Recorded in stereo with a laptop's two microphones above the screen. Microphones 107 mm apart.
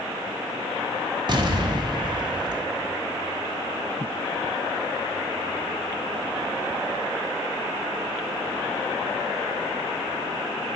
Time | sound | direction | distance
1.3 | an explosion | 45° right (ahead or behind) | 0.7 m